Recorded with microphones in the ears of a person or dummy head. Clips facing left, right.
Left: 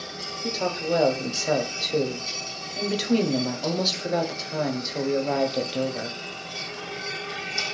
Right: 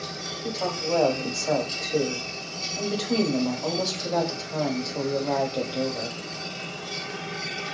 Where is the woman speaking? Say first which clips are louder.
Left 2 dB; 20° left (ahead or behind), 0.6 m.